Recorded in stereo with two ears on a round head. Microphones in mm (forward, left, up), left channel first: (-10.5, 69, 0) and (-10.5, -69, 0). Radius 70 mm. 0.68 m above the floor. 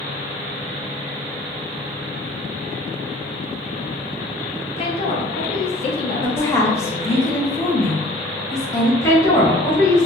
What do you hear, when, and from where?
4.8 s a woman speaking: 40° left (ahead or behind), 0.7 m
6.2 s a woman speaking: 20° left (ahead or behind), 0.7 m
9.0 s a woman speaking: 20° left (ahead or behind), 1.1 m